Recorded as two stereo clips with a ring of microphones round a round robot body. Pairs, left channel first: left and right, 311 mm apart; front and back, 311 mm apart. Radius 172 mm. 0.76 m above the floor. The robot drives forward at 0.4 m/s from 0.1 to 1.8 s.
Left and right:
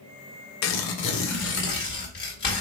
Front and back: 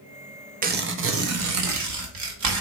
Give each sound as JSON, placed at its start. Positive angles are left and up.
{"t": 0.6, "sound": "tearing paper", "azimuth_deg": 120, "distance_m": 0.5}